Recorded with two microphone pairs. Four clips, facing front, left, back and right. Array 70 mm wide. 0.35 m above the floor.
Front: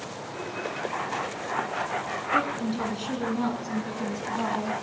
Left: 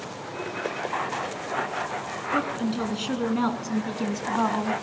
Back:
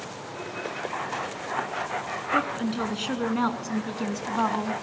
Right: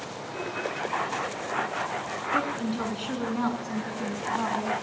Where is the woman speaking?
170° right, 3.5 m; by 4.8 s 165° left, 2.5 m.